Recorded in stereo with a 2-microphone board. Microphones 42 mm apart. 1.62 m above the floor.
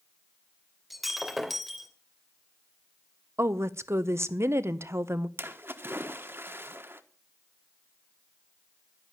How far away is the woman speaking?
About 0.9 m.